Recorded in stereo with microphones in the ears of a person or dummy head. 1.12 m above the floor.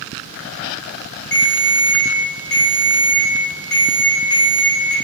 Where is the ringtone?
65° left (ahead or behind), 1.1 m.